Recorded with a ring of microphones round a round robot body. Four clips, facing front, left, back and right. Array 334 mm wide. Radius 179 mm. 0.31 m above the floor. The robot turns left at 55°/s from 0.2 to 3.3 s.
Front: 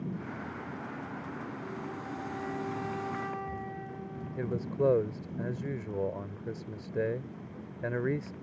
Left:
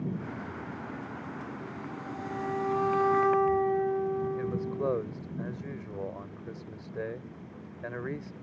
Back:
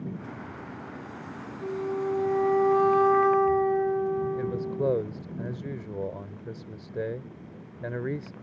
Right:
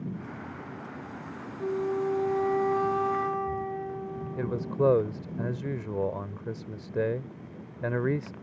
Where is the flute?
110° right; by 5.0 s 155° left.